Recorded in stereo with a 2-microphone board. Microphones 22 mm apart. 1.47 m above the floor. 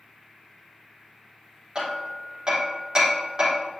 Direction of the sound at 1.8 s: 40° right (ahead or behind).